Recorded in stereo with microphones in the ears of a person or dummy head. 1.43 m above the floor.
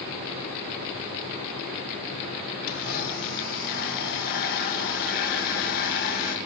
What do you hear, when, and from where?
2.7 s a blender: 50° left (ahead or behind), 1.8 m